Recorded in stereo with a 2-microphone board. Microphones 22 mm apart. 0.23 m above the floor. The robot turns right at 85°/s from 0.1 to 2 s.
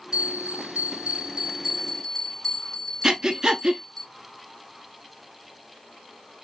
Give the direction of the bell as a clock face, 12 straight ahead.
5 o'clock.